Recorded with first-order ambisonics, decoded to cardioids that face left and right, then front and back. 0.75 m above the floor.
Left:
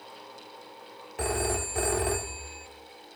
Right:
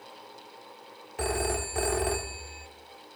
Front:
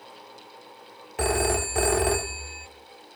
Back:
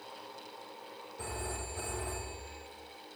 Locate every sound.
1.2 s a phone ringing: straight ahead, 1.3 m